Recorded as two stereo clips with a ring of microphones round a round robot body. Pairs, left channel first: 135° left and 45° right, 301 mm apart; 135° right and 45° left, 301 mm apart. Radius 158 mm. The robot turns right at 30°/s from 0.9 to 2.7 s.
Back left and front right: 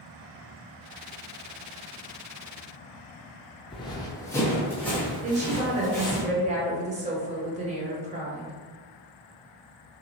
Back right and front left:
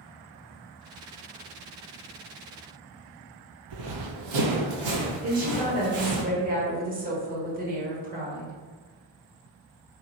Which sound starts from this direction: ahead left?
Running footsteps, at 3.7 s.